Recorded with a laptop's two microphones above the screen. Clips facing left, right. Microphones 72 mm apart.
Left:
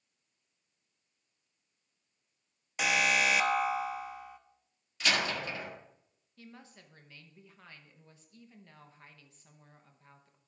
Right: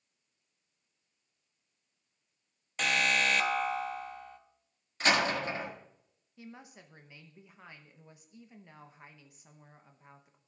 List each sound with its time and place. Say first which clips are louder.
2.8 s an alarm: left 1 dB; 10° left (ahead or behind), 0.7 m
5.0 s a door slam: right 4 dB; 35° right (ahead or behind), 1.8 m
6.4 s a woman speaking: right 3 dB; 15° right (ahead or behind), 0.8 m